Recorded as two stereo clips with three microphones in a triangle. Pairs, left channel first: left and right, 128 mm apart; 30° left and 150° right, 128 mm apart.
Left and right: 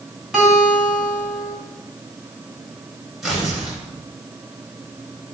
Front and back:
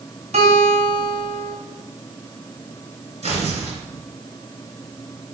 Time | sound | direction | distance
0.3 | a guitar | 175° right | 3 m
3.2 | tearing paper | 175° right | 3 m